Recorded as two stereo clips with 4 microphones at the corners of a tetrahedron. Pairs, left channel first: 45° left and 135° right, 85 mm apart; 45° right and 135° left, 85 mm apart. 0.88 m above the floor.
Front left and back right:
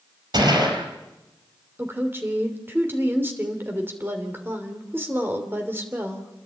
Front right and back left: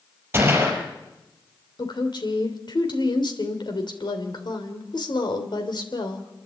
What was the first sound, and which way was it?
A gunshot, 160° right.